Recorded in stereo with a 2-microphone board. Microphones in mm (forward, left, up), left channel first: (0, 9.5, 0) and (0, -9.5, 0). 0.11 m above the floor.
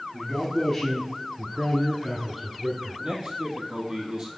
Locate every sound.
0.1 s a man speaking: 10° left (ahead or behind), 2 m; by 3.0 s 20° right (ahead or behind), 1.4 m
3.0 s a man speaking: 45° right (ahead or behind), 3 m